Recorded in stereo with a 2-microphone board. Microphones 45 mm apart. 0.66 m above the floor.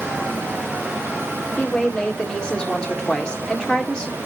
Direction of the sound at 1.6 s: 20° left (ahead or behind).